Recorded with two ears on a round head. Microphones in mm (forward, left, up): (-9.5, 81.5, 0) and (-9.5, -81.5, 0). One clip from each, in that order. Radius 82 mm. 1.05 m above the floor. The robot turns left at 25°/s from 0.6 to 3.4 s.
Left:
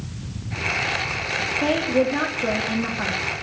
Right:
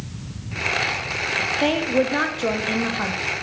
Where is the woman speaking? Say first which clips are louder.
Left 2 dB; 120° right, 1.5 m; by 3.2 s 160° right, 1.5 m.